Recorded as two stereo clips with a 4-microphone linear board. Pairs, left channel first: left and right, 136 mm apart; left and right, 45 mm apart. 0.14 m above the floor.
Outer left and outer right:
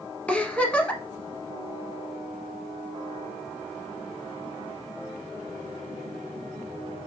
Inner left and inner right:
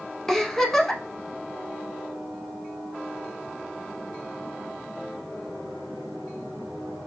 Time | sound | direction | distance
0.3 | a giggle | 10° left (ahead or behind) | 0.6 m